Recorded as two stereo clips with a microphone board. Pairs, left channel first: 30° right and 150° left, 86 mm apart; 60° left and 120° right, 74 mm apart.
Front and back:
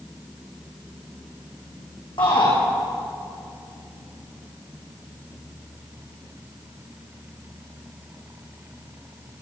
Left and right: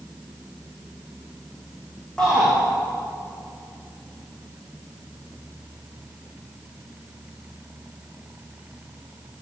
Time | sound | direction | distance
2.2 | a shout | 20° right | 8 m